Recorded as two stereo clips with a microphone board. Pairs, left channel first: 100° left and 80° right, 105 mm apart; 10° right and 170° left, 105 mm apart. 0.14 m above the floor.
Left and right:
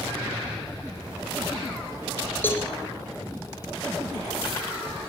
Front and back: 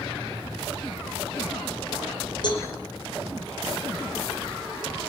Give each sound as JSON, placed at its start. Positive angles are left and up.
{"t": 2.4, "sound": "a cowbell", "azimuth_deg": 30, "distance_m": 4.5}